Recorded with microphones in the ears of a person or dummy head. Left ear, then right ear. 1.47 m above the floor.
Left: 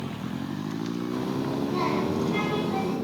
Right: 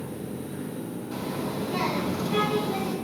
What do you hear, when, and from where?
1.1 s a child speaking: 20° right (ahead or behind), 5 m